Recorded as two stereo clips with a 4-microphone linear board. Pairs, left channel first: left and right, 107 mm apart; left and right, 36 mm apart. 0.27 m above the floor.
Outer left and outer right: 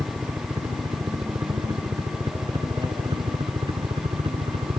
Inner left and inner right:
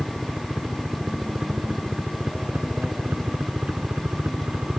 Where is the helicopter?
30° right (ahead or behind); by 4.8 s 60° right (ahead or behind).